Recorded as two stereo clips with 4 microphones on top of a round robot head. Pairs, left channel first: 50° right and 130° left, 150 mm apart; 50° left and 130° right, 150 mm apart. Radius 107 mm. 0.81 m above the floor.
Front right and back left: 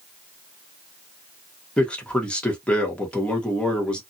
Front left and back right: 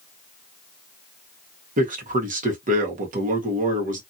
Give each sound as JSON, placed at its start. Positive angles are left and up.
{"t": 1.8, "sound": "a man speaking", "azimuth_deg": -135, "distance_m": 1.4}